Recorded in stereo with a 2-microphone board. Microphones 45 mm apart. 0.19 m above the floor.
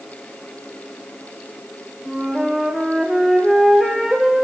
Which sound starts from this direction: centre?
A flute, at 2.1 s.